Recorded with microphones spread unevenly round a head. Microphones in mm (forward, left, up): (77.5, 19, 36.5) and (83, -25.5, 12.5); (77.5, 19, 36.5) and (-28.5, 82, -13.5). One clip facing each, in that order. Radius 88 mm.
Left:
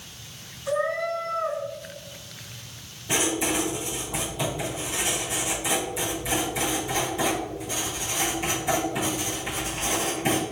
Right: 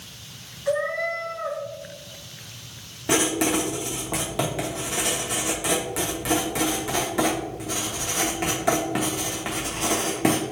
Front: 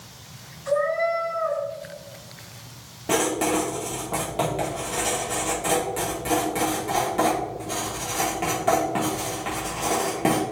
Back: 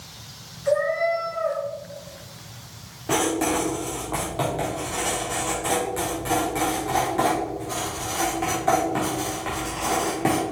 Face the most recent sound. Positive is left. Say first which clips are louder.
# right 4 dB, even
turn(degrees=-100)